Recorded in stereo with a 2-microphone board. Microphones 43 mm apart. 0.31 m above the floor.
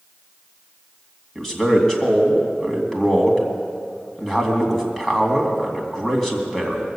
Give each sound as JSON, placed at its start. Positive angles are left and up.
{"t": 1.4, "sound": "a man speaking", "side_deg": 10, "distance_m": 2.5}